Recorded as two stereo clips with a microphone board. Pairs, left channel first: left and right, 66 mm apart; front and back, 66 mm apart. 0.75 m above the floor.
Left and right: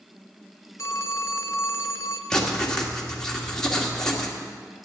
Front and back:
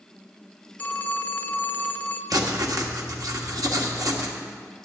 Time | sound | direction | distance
0.8 | a phone ringing | 55° left | 0.7 m
2.3 | writing | 170° left | 1.7 m